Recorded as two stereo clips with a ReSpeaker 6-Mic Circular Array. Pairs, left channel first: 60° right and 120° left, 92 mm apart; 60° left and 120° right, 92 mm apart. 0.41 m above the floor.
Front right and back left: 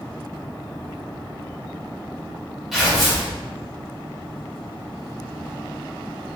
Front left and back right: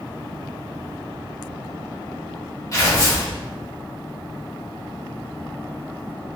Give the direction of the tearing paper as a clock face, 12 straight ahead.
11 o'clock.